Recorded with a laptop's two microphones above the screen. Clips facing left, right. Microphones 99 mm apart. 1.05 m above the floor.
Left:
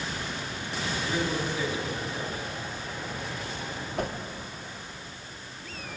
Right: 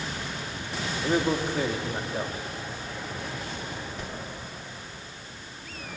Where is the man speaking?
55° right (ahead or behind), 1.7 m.